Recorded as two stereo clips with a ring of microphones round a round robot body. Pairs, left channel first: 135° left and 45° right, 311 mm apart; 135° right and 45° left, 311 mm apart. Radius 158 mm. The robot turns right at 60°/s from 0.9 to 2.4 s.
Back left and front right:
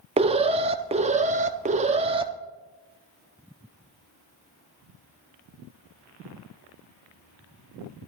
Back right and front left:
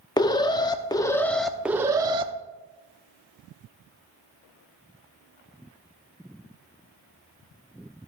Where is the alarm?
80° right, 0.7 m; by 2.3 s 5° left, 0.7 m.